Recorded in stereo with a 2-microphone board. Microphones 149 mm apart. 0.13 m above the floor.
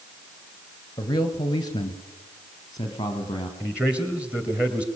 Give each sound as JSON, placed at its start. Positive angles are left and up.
{"t": 1.0, "sound": "a man speaking", "side_deg": 25, "distance_m": 2.5}
{"t": 3.6, "sound": "a man speaking", "side_deg": -10, "distance_m": 2.5}